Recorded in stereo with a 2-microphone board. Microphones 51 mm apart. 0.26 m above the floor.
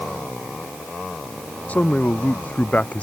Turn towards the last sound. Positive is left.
turn(degrees=30)  # may be behind; listen again after turning